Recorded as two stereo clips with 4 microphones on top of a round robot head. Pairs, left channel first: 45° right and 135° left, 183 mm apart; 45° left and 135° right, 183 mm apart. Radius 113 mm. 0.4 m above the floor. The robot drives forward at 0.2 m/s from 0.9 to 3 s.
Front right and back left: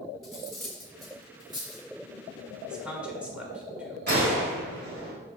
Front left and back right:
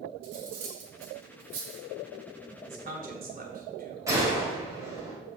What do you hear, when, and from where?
0.2 s cutlery clinking: 130° right, 2 m; by 1.9 s 135° right, 2.5 m
2.7 s a man speaking: 140° right, 1.4 m
4.1 s a gunshot: 150° left, 2.5 m